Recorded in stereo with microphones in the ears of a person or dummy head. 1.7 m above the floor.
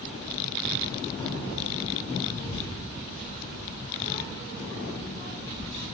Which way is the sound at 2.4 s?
35° left (ahead or behind).